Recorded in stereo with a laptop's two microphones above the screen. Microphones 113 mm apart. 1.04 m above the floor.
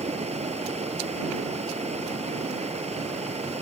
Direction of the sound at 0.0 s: 75° right (ahead or behind).